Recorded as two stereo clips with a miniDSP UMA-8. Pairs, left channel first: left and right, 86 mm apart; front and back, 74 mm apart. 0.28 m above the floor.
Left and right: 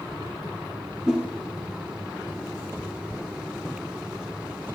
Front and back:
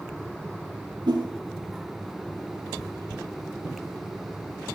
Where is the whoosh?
170° right, 4.5 m.